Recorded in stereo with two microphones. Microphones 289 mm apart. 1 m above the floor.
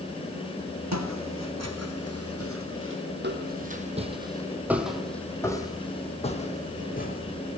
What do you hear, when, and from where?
0.9 s footsteps: 70° right (ahead or behind), 3 m; by 7.6 s 35° left (ahead or behind), 3.5 m